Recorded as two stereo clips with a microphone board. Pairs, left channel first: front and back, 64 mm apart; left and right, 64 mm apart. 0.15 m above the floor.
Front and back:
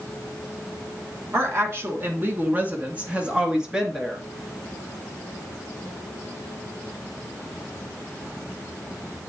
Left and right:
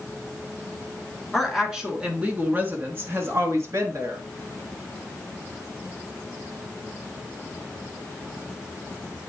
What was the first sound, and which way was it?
A woman speaking, straight behind.